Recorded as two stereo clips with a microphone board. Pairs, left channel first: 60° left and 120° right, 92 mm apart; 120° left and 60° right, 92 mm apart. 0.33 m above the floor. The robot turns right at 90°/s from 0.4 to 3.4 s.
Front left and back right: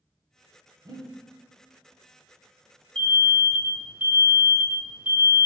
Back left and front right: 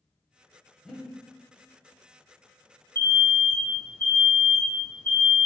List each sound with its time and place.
0.8 s breathing: 155° right, 0.7 m; by 1.1 s 135° right, 0.7 m
3.0 s an alarm: 125° left, 1.4 m; by 5.5 s 165° left, 1.4 m